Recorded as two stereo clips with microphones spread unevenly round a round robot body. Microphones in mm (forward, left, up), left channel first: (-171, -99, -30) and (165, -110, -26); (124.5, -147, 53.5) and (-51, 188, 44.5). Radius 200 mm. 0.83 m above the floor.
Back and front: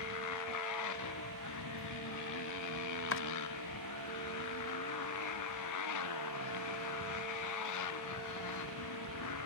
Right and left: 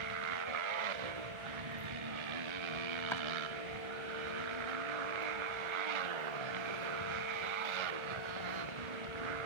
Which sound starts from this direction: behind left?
A motorcycle, at 0.0 s.